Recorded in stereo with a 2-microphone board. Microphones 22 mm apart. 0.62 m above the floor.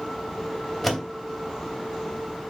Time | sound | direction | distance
0.8 | a door slam | 10° left (ahead or behind) | 2.5 m